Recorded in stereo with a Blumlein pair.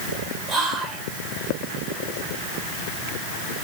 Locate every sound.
0.5 s whispering: 15° right, 0.7 m